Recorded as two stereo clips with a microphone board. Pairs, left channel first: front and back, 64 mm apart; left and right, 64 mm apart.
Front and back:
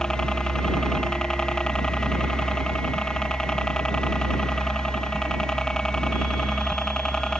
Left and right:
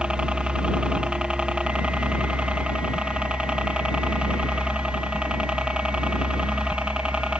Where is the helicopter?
55° right.